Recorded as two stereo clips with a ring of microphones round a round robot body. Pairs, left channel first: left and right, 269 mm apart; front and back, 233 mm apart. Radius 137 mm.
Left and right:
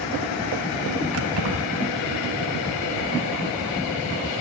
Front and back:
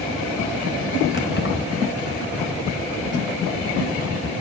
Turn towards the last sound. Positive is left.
turn(degrees=-55)